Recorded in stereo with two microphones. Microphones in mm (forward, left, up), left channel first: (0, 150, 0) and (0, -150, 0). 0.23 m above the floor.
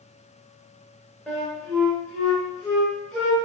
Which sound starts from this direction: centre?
A flute, at 1.3 s.